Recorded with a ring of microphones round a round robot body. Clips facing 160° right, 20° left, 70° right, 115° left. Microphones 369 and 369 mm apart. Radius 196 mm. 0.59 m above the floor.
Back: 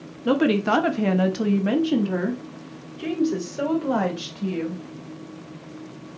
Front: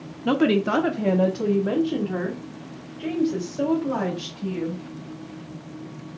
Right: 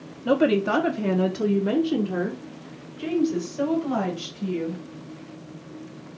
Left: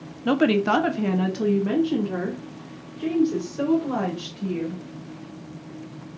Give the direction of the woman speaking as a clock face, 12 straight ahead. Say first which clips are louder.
Even, left 1 dB; 9 o'clock.